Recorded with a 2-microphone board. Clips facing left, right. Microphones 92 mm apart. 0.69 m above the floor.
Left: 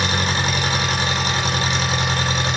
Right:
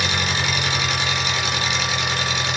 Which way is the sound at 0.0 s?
35° left (ahead or behind).